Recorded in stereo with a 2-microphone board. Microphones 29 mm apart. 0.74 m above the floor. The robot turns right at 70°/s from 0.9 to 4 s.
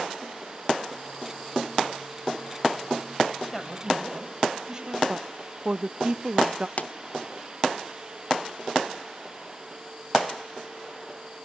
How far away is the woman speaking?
About 0.5 m.